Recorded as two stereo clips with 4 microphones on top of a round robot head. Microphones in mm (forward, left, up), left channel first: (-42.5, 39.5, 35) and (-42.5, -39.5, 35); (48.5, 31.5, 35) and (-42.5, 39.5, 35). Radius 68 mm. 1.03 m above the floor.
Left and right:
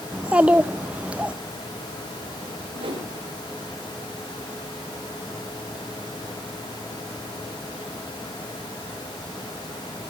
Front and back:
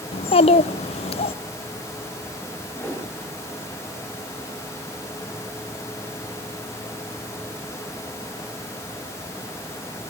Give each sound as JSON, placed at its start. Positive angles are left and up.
{"t": 0.1, "sound": "a child speaking", "azimuth_deg": -10, "distance_m": 0.7}
{"t": 2.8, "sound": "a whoosh", "azimuth_deg": -80, "distance_m": 7.0}